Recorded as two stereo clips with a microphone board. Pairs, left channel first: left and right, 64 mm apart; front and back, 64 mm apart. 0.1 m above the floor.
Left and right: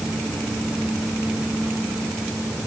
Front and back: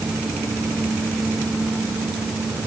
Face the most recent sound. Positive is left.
No sound to turn to.